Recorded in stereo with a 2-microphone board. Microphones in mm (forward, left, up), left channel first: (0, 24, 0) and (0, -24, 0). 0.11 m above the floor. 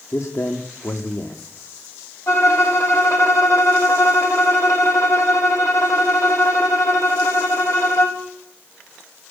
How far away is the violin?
About 3 m.